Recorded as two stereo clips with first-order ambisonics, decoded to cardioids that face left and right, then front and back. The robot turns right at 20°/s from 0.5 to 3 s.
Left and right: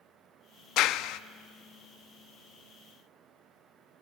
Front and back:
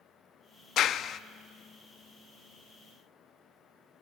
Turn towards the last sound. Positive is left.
turn(degrees=95)